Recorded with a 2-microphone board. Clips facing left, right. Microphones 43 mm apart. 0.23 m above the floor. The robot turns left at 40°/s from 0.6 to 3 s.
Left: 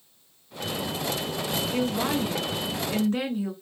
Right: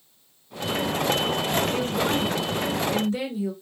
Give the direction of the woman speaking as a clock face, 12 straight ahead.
6 o'clock.